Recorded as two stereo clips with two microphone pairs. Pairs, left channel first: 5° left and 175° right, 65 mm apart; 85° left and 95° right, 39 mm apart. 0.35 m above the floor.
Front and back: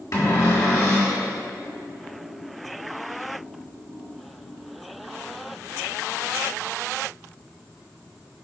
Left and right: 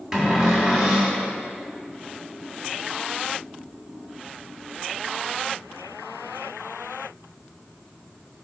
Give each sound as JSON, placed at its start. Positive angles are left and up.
{"t": 0.1, "sound": "a cupboard door", "azimuth_deg": -5, "distance_m": 2.5}